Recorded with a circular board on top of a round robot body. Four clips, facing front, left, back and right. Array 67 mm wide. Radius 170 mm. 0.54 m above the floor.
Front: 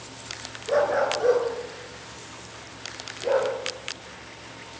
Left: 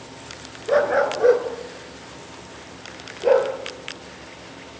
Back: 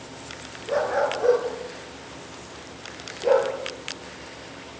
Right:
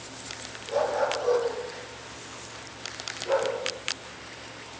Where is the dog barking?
85° left, 2.5 m; by 3.5 s 105° left, 4 m.